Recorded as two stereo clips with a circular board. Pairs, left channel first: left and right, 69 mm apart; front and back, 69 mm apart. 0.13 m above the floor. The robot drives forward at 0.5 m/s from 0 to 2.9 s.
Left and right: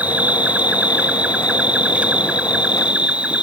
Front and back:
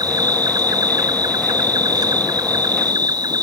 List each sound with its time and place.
0.0 s an insect: 160° right; by 3.4 s 165° right